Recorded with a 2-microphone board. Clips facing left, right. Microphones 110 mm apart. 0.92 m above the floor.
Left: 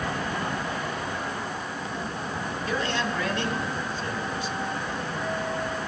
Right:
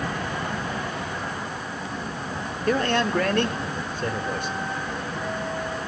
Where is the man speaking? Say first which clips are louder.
Right 7 dB; 55° right (ahead or behind), 1.9 m; by 4.5 s 60° right (ahead or behind), 3.5 m.